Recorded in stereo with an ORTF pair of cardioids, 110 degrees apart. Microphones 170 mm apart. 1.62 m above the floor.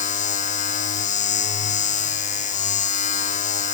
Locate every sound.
0.0 s a machine running: 45° left